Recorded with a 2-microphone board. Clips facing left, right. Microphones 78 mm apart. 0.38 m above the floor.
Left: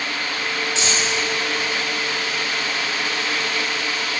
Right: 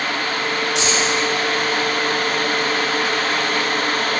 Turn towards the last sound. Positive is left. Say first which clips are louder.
# right 4 dB
turn(degrees=-75)  # may be behind; listen again after turning